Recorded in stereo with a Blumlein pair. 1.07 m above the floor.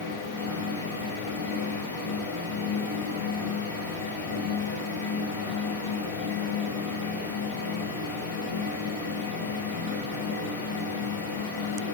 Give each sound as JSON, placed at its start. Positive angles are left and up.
{"t": 0.0, "sound": "a fan", "azimuth_deg": 65, "distance_m": 7.0}